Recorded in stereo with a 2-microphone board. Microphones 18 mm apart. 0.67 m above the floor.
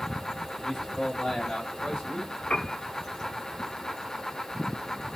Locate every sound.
0.6 s a man speaking: 20° left (ahead or behind), 1.5 m; by 2.3 s 40° left (ahead or behind), 1.4 m
2.5 s a piano: 60° left (ahead or behind), 0.6 m